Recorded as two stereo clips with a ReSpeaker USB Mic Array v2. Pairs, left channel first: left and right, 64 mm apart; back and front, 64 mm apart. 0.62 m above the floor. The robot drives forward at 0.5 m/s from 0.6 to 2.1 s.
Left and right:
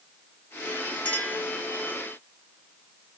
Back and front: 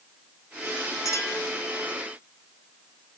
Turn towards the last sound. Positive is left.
turn(degrees=165)